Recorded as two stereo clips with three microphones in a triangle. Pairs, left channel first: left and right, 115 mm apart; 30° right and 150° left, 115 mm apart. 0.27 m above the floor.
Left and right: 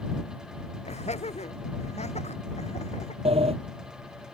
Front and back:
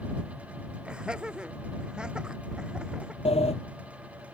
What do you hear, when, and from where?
0.8 s laughter: 65° left
3.2 s a sliding door: 60° right